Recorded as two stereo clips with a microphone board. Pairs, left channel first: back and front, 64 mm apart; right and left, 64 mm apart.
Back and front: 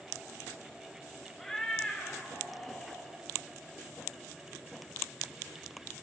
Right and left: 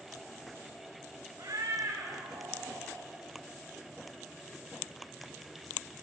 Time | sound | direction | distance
1.4 | a cat meowing | 95° left | 1.3 m